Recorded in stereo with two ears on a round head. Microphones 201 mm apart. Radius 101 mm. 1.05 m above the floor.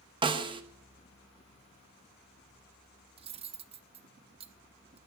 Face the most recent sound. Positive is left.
turn(degrees=-25)  # may be behind; listen again after turning